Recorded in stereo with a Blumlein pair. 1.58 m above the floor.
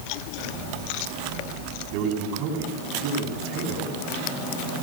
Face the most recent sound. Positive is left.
turn(degrees=-40)